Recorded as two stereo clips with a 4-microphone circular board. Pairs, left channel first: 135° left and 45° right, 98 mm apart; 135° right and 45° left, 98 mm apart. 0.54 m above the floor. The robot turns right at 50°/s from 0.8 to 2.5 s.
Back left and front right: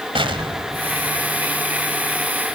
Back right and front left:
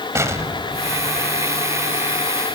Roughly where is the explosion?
Ahead.